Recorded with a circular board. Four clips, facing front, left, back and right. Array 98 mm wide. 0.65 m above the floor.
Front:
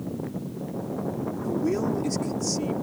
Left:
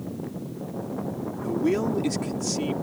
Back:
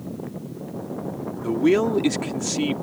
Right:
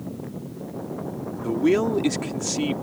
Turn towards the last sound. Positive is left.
turn(degrees=-155)